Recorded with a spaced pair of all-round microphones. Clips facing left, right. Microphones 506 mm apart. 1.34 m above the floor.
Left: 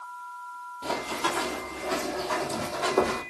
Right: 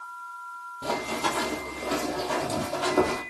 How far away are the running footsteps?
About 2.5 m.